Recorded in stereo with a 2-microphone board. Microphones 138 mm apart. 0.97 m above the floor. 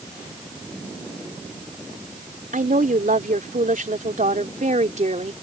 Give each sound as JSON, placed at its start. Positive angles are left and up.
{"t": 2.5, "sound": "a woman speaking", "side_deg": -80}